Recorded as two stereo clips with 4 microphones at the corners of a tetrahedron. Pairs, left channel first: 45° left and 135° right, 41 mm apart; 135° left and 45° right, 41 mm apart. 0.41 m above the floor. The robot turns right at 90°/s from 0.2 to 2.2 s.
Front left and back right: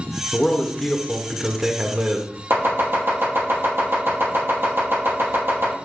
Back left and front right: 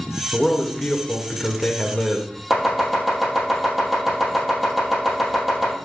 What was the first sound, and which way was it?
A man speaking, 50° left.